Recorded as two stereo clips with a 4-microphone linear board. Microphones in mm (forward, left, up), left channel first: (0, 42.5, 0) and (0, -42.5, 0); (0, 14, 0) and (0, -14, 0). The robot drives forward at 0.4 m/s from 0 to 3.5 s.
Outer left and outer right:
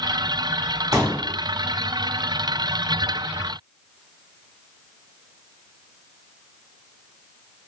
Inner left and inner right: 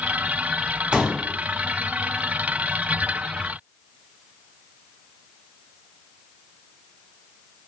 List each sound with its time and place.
0.9 s a pop: 40° right (ahead or behind), 1.0 m